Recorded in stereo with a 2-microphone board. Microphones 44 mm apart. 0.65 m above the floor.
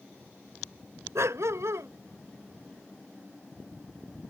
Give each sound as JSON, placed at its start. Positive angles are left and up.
{"t": 1.1, "sound": "a dog barking", "side_deg": -70}